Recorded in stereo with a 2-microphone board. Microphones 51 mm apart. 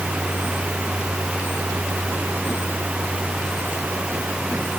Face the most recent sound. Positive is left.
No sound to turn to.